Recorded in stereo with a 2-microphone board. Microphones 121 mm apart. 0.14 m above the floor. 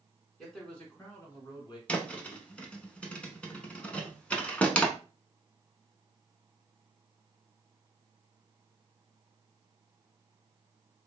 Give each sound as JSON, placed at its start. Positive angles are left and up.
{"t": 0.4, "sound": "a man speaking", "side_deg": 0, "distance_m": 1.3}
{"t": 1.9, "sound": "a thud", "side_deg": 10, "distance_m": 0.6}